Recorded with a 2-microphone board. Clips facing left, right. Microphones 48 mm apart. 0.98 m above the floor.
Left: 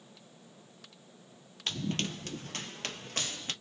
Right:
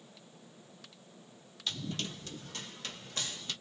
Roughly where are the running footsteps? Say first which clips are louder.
Left 4 dB; left.